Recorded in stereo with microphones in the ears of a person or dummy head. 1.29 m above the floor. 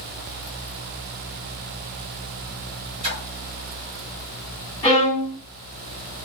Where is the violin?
30° left (ahead or behind), 1.9 m.